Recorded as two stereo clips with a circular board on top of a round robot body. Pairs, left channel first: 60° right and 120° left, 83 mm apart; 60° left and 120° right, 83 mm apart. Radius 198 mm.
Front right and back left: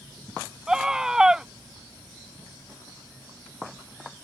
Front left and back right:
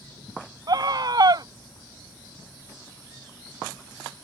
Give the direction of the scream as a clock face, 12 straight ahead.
5 o'clock.